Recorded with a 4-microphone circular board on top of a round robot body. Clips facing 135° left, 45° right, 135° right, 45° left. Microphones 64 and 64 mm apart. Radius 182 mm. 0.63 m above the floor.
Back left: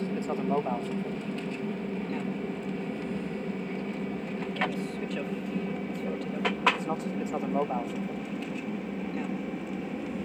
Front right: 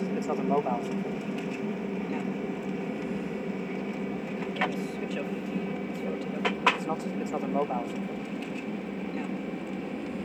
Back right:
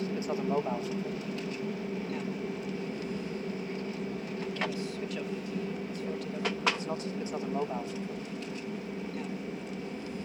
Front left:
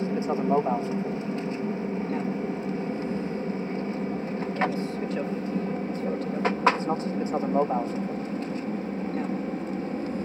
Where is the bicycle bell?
No bicycle bell in this recording.